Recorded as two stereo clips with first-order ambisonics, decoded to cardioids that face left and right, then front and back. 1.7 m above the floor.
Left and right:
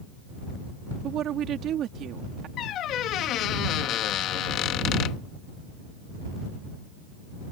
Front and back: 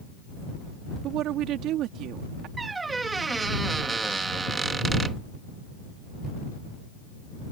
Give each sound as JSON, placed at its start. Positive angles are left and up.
{"t": 1.0, "sound": "a woman speaking", "azimuth_deg": -140}
{"t": 2.6, "sound": "a squeak", "azimuth_deg": 110}